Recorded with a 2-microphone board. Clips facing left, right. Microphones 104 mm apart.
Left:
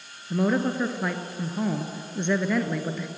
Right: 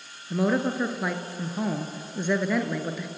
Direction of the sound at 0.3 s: 5° right (ahead or behind).